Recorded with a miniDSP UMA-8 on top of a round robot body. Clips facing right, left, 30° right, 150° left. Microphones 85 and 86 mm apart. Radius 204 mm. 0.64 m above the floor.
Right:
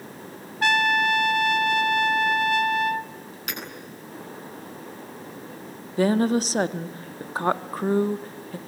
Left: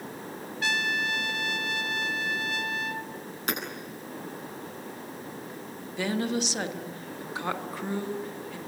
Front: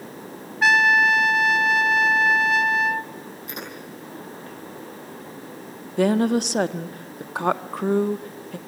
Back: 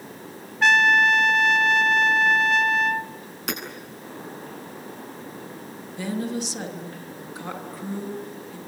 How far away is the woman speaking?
About 1.7 m.